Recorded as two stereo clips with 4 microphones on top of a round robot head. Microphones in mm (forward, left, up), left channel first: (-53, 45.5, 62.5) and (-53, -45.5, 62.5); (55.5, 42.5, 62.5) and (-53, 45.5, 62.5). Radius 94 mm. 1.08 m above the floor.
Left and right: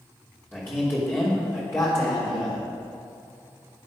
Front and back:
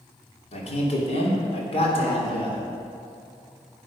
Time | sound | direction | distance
0.5 | a man speaking | 10° left | 2.5 m